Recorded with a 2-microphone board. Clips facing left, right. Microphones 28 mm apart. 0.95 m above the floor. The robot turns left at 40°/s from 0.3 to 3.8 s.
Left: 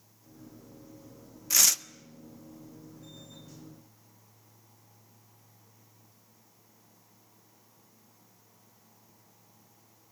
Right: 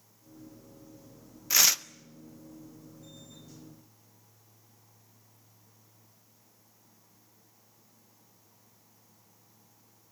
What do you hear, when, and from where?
1.5 s tearing paper: 15° right (ahead or behind), 0.6 m; by 1.8 s 25° right (ahead or behind), 0.6 m